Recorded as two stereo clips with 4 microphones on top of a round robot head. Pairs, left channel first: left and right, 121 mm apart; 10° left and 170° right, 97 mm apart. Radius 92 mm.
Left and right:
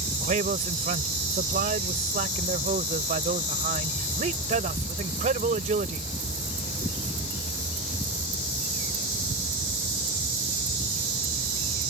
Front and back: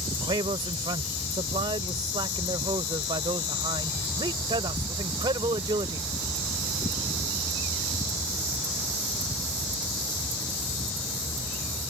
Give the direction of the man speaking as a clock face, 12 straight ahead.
4 o'clock.